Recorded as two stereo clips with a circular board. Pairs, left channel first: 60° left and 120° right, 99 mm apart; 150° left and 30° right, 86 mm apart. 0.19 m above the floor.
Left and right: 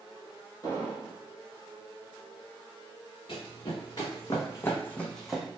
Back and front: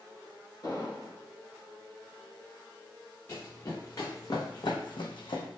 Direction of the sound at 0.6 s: 110° left.